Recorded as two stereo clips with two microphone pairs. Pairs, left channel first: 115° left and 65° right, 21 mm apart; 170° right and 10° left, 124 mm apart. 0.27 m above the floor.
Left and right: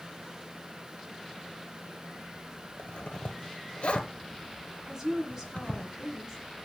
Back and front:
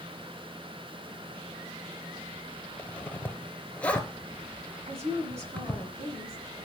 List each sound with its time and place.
2.8 s a zipper: 105° left, 0.9 m
4.9 s a woman speaking: 5° right, 2 m